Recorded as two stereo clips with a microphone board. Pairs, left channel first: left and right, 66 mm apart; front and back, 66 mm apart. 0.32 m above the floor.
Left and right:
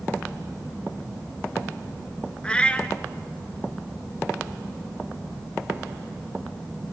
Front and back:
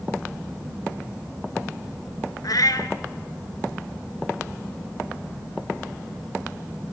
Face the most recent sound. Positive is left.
turn(degrees=15)